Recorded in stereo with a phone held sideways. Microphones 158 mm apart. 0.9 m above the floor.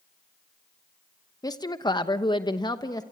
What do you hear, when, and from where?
1.4 s a woman speaking: 25° left (ahead or behind), 1.1 m